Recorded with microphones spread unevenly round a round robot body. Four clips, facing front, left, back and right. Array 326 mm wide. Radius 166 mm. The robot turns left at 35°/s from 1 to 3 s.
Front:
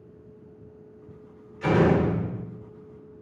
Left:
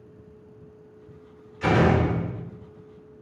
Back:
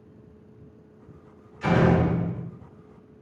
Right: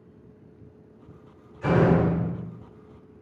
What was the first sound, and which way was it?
A door slam, 100° left.